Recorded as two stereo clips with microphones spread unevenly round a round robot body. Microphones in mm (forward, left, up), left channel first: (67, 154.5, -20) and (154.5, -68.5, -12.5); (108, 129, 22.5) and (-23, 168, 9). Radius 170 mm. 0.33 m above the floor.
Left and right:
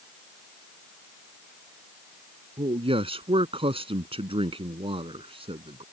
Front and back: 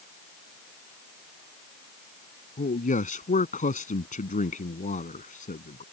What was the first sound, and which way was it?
A man speaking, straight ahead.